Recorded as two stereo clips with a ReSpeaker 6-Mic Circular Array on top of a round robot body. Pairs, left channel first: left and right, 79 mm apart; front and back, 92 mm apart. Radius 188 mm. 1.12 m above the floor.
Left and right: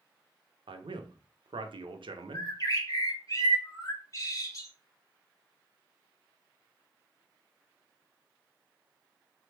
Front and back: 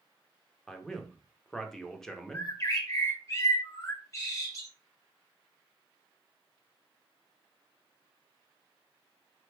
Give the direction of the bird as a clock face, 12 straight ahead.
10 o'clock.